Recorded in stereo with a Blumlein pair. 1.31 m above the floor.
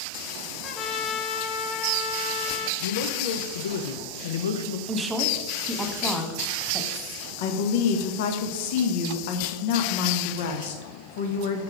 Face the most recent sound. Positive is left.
turn(degrees=50)